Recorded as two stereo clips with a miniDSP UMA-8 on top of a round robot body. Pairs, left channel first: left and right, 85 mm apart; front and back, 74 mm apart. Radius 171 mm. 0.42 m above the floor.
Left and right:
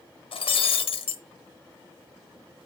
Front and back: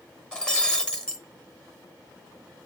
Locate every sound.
0.3 s breaking glass: 80° left, 1.0 m